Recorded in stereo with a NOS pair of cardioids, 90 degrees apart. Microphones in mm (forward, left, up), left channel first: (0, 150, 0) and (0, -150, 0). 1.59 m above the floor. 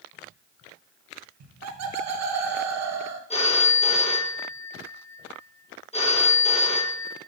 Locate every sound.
1.4 s laughter: 60° right, 1.1 m
3.3 s a phone ringing: 20° left, 1.5 m